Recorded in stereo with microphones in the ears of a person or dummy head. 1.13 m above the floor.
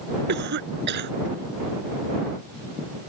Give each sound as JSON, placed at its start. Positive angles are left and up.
{"t": 0.3, "sound": "a cough", "side_deg": -55}